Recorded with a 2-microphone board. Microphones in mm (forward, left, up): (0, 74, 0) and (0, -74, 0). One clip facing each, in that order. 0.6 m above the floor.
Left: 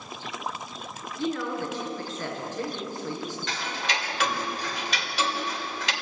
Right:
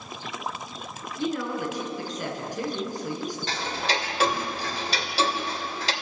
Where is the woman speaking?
15° right (ahead or behind), 6.5 m.